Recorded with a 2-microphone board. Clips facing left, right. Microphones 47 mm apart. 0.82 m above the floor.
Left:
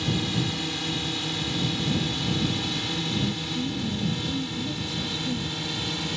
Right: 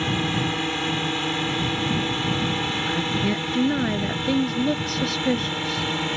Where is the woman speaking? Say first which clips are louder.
Right 6 dB; 70° right (ahead or behind).